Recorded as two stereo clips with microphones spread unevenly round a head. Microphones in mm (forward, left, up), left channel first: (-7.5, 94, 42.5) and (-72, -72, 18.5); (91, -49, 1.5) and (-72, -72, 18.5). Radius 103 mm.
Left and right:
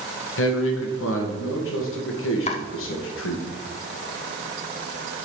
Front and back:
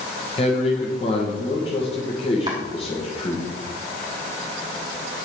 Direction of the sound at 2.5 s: 120° left.